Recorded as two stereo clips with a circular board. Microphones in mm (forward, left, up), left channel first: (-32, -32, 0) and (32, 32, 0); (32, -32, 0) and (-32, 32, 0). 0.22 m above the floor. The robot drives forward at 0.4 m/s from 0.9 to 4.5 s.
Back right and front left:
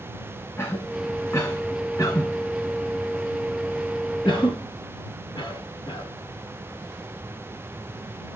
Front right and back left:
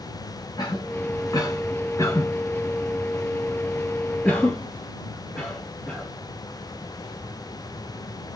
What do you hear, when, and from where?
0.6 s a cough: 85° right, 1.8 m; by 6.1 s 130° right, 2 m